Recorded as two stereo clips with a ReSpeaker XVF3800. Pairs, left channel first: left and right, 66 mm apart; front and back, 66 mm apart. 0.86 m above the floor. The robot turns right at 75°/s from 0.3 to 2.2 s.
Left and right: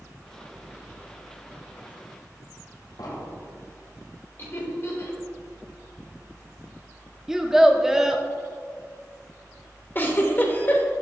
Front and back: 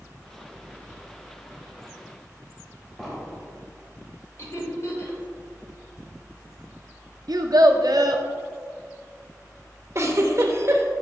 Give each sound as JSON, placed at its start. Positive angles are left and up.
{"t": 3.0, "sound": "an explosion", "azimuth_deg": 80, "distance_m": 2.0}
{"t": 4.4, "sound": "laughter", "azimuth_deg": 40, "distance_m": 2.5}
{"t": 7.3, "sound": "a child speaking", "azimuth_deg": -170, "distance_m": 0.7}
{"t": 9.9, "sound": "a giggle", "azimuth_deg": 145, "distance_m": 0.8}